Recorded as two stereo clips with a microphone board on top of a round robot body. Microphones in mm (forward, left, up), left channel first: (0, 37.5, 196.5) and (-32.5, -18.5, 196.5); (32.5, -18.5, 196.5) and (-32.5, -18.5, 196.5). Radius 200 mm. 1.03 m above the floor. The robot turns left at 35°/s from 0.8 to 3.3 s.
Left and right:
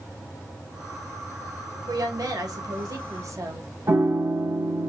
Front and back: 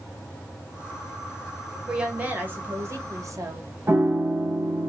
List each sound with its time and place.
1.9 s a woman speaking: 105° right, 1.7 m; by 3.7 s 155° right, 1.7 m
3.9 s a piano: 145° right, 1.3 m